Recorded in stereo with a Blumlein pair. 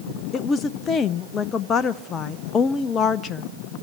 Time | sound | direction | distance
0.3 | a woman speaking | 25° left | 0.6 m